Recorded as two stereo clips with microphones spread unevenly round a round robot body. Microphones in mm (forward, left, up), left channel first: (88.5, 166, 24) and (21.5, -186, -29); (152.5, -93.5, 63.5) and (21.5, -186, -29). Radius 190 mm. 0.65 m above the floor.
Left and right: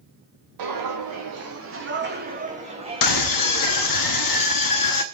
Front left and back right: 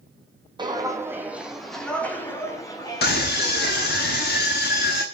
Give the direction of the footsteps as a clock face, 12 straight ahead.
2 o'clock.